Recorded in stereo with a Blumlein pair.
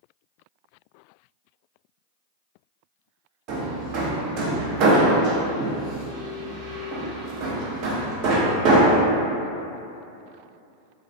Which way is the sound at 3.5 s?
40° right.